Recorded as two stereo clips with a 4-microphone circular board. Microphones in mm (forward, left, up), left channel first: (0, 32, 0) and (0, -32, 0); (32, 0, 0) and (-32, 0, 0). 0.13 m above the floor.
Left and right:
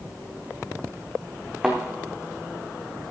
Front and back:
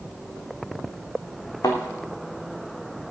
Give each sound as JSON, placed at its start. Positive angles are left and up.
{"t": 1.6, "sound": "a thud", "azimuth_deg": -10, "distance_m": 2.5}